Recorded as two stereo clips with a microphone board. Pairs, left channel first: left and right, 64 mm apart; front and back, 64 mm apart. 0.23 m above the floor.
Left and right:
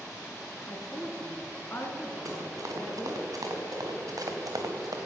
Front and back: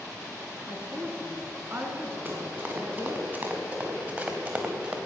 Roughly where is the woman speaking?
Behind left.